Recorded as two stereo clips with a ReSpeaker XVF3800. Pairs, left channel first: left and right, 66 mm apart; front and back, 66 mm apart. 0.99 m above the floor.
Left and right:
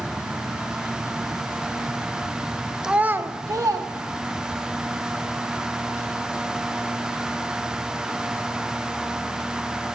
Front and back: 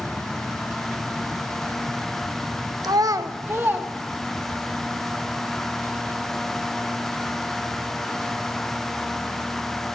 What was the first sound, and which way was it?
A child speaking, 170° right.